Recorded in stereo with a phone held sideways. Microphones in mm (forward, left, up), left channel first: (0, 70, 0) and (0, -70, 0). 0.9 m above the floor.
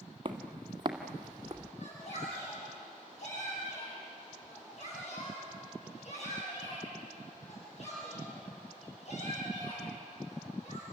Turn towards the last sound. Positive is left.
turn(degrees=55)  # may be behind; listen again after turning